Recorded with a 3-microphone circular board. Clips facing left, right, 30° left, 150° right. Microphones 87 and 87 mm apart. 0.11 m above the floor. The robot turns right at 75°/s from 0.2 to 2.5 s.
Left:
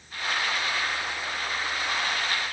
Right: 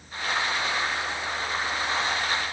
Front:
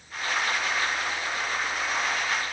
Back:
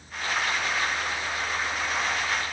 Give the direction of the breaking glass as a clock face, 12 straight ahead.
I don't hear breaking glass.